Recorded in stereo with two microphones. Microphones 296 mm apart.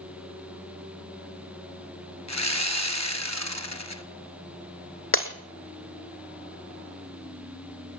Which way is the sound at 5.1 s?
45° left (ahead or behind).